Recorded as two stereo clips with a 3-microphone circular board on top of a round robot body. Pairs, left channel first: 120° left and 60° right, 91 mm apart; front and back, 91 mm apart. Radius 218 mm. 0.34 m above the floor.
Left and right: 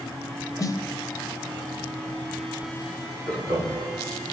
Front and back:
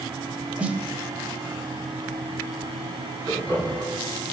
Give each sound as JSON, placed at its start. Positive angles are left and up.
{"t": 0.6, "sound": "a snare drum", "azimuth_deg": 115, "distance_m": 1.0}
{"t": 3.3, "sound": "laughter", "azimuth_deg": -120, "distance_m": 4.0}